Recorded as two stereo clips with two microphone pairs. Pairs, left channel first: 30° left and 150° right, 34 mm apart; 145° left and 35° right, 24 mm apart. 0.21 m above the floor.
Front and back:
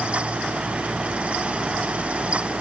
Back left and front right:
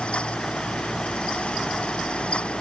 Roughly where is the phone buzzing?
I don't hear a phone buzzing.